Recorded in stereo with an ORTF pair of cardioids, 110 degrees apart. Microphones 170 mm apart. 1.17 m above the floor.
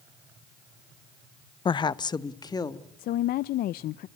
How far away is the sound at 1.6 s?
About 0.5 m.